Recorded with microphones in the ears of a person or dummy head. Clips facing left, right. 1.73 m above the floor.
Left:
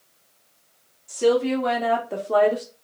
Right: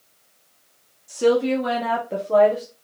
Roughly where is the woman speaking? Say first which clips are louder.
Right 1 dB; centre.